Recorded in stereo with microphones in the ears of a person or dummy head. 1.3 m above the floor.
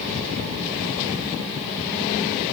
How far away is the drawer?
No drawer in this recording.